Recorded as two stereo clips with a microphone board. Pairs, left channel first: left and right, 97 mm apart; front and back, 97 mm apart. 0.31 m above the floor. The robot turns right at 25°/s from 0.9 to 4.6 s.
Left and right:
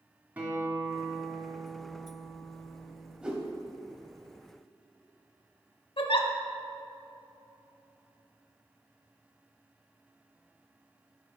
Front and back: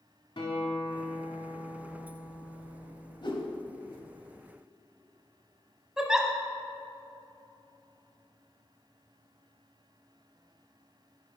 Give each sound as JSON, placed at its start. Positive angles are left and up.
{"t": 0.4, "sound": "a guitar", "azimuth_deg": -15, "distance_m": 2.0}
{"t": 3.2, "sound": "a whoosh", "azimuth_deg": -10, "distance_m": 1.1}
{"t": 6.0, "sound": "a giggle", "azimuth_deg": 95, "distance_m": 0.8}